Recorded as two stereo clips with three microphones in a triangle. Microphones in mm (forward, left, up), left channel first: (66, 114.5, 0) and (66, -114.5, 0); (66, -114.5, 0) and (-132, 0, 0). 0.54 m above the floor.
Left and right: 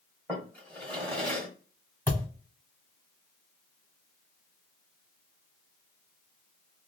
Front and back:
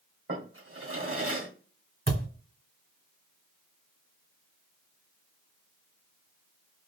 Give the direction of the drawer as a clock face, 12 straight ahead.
6 o'clock.